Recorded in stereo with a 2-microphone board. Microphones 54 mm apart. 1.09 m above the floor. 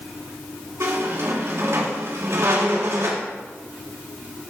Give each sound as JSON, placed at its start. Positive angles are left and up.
{"t": 0.8, "sound": "a squeak", "side_deg": -65, "distance_m": 2.0}